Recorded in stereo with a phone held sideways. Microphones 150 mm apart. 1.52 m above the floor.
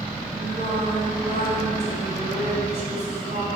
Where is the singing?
55° right (ahead or behind), 2.5 m.